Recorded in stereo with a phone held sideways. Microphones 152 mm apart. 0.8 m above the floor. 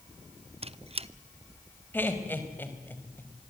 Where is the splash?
I don't hear a splash.